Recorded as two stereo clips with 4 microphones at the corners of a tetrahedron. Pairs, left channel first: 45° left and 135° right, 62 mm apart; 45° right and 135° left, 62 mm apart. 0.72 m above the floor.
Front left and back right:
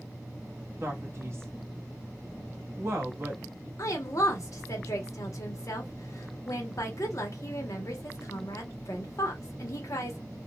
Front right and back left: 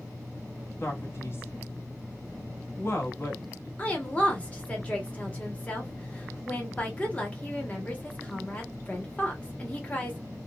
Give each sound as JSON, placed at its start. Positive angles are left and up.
{"t": 0.8, "sound": "a man speaking", "azimuth_deg": -90, "distance_m": 1.0}
{"t": 3.8, "sound": "a woman speaking", "azimuth_deg": 20, "distance_m": 0.9}